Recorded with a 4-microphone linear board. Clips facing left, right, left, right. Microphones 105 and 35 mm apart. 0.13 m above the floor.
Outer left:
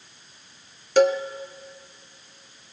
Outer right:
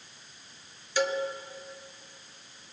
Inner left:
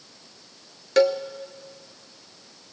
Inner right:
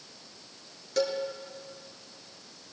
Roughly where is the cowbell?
Left.